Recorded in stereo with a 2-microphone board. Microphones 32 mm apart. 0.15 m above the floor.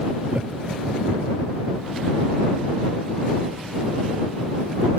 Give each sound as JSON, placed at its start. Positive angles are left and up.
{"t": 0.3, "sound": "laughter", "side_deg": -45}